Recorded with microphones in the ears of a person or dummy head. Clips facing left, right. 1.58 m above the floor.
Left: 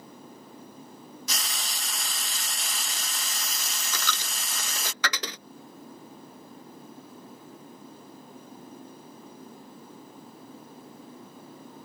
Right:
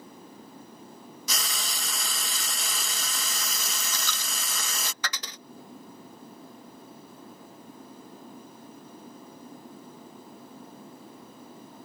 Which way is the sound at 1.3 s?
80° right.